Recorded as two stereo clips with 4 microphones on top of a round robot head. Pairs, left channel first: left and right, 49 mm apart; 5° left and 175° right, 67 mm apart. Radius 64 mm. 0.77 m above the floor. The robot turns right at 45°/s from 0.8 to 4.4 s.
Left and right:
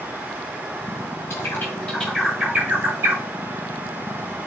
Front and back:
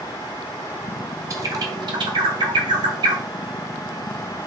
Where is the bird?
140° left, 1.3 m; by 3.2 s 135° right, 1.3 m.